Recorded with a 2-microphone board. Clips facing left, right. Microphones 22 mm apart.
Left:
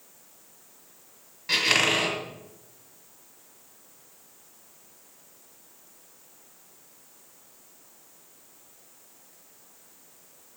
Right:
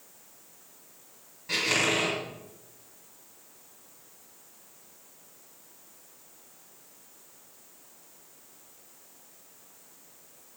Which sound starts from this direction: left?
A squeak, at 1.5 s.